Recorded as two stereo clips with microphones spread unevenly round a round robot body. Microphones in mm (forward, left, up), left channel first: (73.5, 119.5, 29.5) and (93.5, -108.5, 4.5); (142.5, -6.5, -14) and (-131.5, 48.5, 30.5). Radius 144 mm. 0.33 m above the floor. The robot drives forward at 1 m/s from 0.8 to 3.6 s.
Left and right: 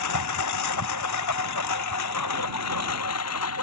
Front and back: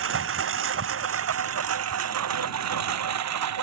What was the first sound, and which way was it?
A lawn mower, 125° left.